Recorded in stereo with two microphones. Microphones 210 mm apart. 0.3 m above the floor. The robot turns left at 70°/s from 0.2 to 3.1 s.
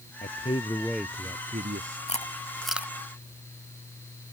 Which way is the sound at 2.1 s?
35° left (ahead or behind).